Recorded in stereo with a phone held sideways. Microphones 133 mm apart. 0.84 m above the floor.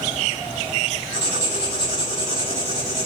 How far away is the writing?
About 4.5 m.